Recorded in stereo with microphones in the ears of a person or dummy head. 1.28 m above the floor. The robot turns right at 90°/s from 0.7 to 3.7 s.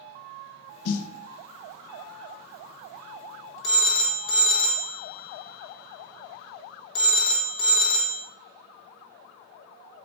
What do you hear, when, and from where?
0.8 s a snare drum: 70° left (ahead or behind), 0.5 m; by 1.1 s 90° left, 0.5 m
3.6 s a phone ringing: 25° left (ahead or behind), 0.6 m; by 8.2 s 30° left (ahead or behind), 0.6 m